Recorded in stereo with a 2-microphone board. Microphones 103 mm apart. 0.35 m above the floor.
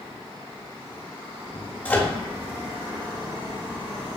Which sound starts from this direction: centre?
A microwave, at 1.9 s.